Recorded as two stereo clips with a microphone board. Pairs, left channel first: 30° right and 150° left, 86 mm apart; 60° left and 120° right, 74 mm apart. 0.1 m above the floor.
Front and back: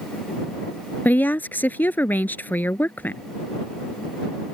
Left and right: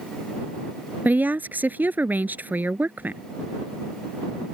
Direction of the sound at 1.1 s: 80° right.